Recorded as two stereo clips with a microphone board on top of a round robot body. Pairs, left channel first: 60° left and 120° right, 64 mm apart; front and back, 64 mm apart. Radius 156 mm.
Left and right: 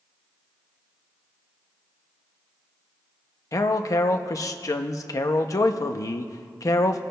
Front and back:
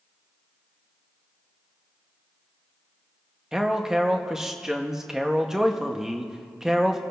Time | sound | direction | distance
3.5 | a man speaking | 100° left | 0.6 m